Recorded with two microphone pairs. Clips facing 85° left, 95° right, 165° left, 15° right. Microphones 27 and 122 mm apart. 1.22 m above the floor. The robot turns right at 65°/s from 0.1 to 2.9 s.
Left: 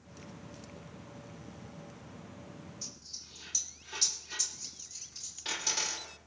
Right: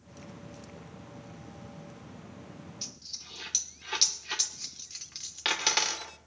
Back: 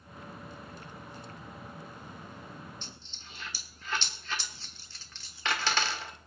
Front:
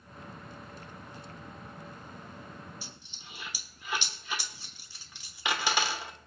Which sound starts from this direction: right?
A dropped coin, at 2.8 s.